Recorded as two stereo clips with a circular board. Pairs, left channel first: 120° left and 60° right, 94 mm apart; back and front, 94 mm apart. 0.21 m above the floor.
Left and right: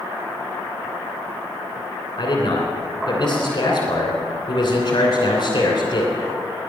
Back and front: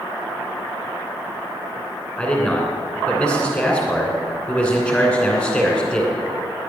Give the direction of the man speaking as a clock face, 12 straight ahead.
9 o'clock.